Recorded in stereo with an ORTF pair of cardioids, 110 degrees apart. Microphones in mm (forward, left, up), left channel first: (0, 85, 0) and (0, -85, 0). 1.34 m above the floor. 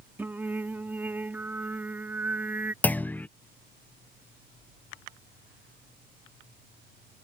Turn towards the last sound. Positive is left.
turn(degrees=10)